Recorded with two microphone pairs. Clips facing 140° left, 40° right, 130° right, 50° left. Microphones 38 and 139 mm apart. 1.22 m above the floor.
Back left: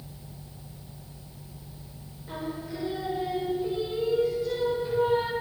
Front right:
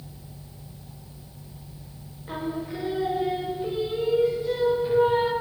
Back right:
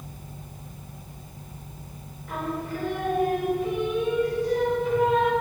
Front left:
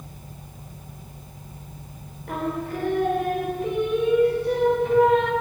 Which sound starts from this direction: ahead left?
Singing, at 2.3 s.